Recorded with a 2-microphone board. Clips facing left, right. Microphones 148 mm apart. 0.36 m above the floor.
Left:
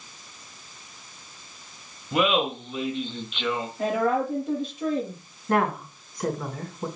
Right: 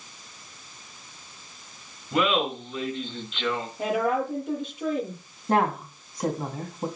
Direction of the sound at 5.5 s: 25° right (ahead or behind).